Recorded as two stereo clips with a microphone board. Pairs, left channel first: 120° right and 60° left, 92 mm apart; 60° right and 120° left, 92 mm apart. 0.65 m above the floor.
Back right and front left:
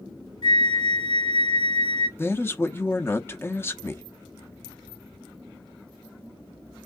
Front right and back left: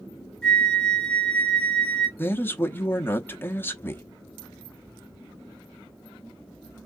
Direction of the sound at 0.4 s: 145° right.